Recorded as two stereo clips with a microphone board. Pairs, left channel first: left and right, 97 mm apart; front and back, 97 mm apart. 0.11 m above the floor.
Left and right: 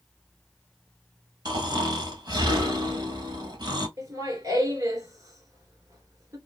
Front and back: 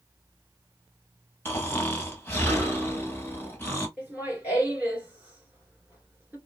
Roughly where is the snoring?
Ahead right.